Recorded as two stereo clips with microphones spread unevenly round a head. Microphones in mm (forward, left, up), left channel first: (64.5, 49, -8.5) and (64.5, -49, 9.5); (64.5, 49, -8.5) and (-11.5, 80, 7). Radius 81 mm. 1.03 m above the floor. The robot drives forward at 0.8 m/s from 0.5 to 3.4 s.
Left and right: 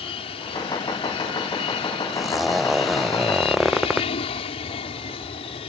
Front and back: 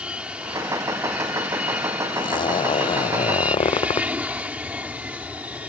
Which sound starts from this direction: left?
An aircraft, at 0.0 s.